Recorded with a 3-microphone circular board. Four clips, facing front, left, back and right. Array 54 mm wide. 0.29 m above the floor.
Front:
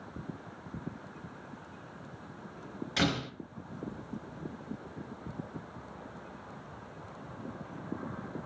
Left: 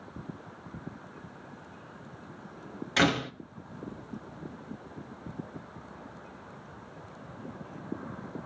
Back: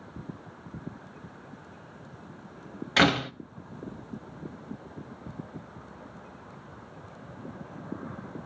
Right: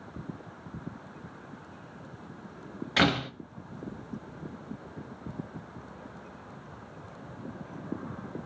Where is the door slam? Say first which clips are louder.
Even, back 9 dB; 170° right, 1.1 m.